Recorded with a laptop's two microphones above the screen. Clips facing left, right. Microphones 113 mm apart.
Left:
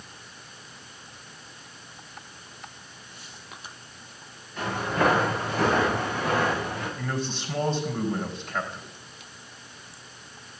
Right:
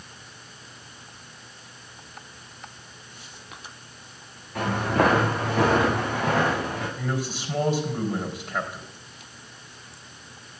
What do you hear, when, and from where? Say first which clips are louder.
4.5 s footsteps: right 3 dB; 80° right, 4.5 m; by 6.9 s 70° right (ahead or behind), 6 m
7.0 s a man speaking: right 1 dB; 10° right (ahead or behind), 4 m